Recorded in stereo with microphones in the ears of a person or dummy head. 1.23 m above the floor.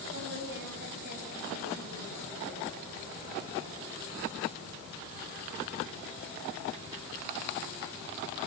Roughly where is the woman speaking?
Right.